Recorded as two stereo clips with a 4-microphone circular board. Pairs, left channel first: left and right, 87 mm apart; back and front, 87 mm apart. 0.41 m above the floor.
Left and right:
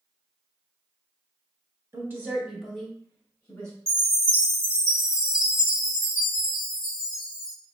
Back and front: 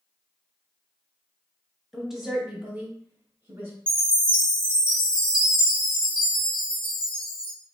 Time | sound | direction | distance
1.9 | a woman speaking | 90° right | 0.8 m
3.9 | a chime | 105° right | 1.7 m